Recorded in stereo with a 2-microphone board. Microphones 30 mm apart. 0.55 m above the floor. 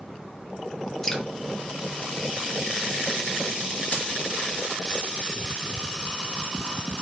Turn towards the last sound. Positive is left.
turn(degrees=50)  # may be behind; listen again after turning